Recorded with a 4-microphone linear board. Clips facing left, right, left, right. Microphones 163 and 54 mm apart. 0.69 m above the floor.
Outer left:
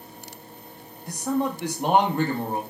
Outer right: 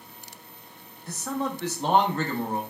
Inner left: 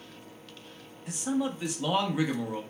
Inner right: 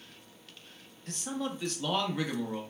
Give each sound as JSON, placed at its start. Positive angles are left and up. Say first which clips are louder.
{"t": 1.1, "sound": "a man speaking", "louder": "outer left 5 dB, inner left 6 dB", "side_deg": 15, "distance_m": 0.7}